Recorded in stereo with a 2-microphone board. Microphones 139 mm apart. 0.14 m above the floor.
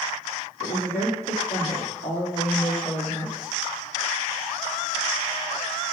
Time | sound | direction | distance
0.6 | a woman speaking | 65° left (ahead or behind) | 3.5 m